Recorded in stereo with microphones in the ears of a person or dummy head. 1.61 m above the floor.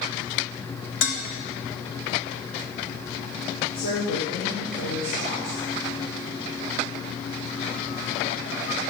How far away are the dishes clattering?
About 3 m.